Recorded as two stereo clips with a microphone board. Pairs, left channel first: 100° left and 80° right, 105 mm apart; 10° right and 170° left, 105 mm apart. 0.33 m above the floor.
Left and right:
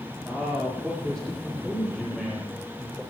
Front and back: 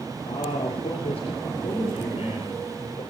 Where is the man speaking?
20° left, 7.5 m; by 3.0 s 15° left, 10.5 m.